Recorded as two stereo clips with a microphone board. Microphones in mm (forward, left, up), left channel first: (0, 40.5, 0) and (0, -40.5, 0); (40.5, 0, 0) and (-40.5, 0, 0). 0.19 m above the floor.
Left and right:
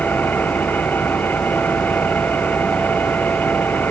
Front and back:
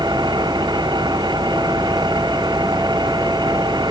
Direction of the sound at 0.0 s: 155° left.